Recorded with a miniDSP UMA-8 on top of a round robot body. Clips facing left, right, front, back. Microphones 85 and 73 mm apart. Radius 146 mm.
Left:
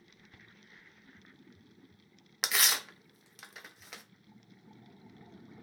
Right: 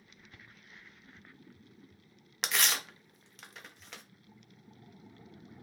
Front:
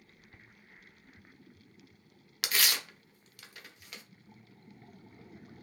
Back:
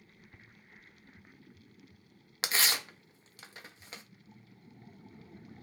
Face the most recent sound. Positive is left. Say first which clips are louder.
# even, back 1 dB
turn(degrees=170)